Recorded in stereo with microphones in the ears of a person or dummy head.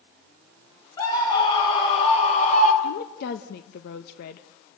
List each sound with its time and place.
1.0 s a scream: 25° left (ahead or behind), 6 m; by 2.7 s 45° left (ahead or behind), 5.5 m
2.8 s a woman speaking: 60° left (ahead or behind), 1.3 m